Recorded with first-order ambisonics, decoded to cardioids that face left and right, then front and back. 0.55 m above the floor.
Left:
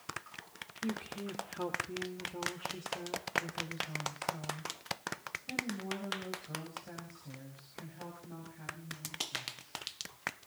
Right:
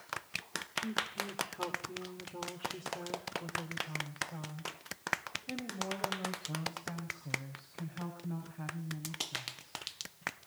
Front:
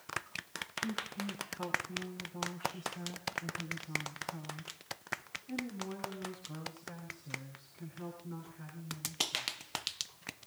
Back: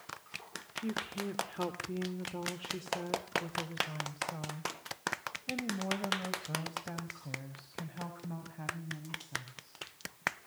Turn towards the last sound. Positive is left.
turn(degrees=-160)